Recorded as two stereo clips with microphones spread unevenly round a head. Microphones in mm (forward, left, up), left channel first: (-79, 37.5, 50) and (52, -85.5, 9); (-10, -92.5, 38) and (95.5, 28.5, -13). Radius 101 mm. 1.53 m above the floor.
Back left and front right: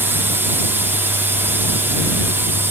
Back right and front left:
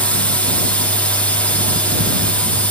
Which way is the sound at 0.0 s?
20° right.